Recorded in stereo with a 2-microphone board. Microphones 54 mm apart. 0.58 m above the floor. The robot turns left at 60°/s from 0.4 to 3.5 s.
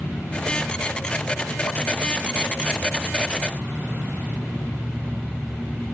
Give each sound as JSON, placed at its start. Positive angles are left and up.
{"t": 0.0, "sound": "an insect", "azimuth_deg": 160, "distance_m": 5.5}